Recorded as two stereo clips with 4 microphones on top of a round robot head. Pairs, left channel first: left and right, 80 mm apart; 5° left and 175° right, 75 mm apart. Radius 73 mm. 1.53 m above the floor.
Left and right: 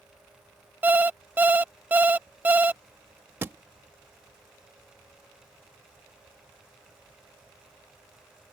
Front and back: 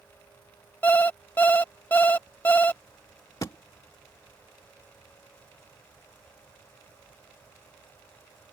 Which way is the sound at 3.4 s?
45° right.